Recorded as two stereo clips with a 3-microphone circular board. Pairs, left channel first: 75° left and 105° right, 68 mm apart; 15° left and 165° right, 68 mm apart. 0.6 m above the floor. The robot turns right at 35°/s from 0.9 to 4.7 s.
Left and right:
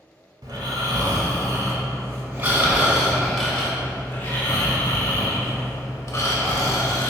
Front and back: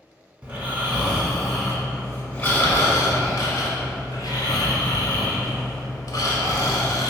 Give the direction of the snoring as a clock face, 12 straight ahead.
3 o'clock.